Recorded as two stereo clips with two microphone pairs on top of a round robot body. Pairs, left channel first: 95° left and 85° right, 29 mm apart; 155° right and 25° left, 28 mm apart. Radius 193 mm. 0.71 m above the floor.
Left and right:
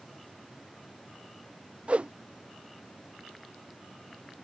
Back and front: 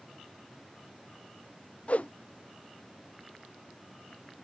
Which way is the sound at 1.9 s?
125° right.